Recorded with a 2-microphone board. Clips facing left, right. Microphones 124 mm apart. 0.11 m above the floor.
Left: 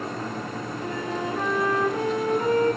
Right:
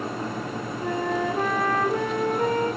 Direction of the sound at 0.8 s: 55° right (ahead or behind).